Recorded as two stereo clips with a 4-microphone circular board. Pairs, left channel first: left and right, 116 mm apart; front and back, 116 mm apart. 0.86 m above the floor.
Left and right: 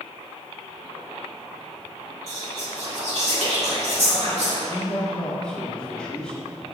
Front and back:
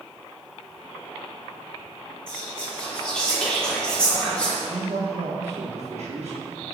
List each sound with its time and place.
2.3 s whispering: 80° right, 2.5 m
4.7 s a man speaking: 170° left, 1.6 m